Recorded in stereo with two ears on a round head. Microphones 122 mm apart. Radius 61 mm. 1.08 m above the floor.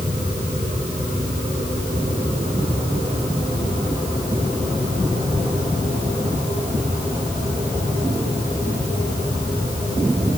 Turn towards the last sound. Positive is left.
No sound to turn to.